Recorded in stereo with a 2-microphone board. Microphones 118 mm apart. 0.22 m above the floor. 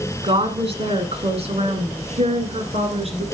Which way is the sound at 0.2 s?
50° right (ahead or behind).